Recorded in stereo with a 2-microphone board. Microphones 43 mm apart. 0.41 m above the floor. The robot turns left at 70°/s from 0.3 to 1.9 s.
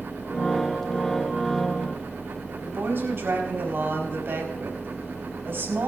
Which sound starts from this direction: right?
A woman speaking, at 2.6 s.